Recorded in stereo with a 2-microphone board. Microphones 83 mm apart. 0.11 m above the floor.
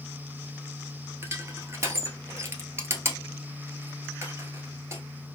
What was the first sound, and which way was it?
Crushing, 35° right (ahead or behind).